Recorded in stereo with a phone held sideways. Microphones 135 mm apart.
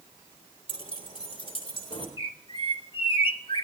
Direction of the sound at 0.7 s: 40° left (ahead or behind).